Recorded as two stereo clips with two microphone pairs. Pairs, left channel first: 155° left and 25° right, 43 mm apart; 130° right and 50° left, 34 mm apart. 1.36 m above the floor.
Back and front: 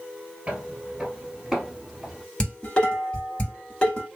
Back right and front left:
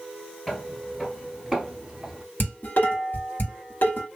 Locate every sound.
0.5 s footsteps: 55° right, 1.4 m; by 2.2 s 65° left, 1.4 m
2.4 s dishes clattering: 145° right, 1.9 m